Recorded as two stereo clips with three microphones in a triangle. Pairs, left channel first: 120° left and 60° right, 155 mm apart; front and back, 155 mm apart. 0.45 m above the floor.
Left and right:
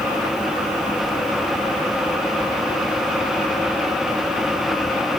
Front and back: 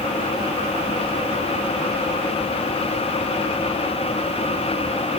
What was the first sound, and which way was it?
Only background noise.